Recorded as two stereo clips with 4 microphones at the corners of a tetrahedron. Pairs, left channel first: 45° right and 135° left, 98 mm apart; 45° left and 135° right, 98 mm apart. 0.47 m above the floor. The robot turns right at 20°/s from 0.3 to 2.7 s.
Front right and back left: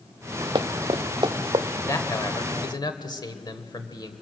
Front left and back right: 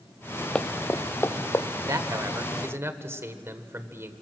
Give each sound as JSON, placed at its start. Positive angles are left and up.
{"t": 0.6, "sound": "running footsteps", "azimuth_deg": 125, "distance_m": 0.7}
{"t": 1.9, "sound": "a man speaking", "azimuth_deg": -90, "distance_m": 1.5}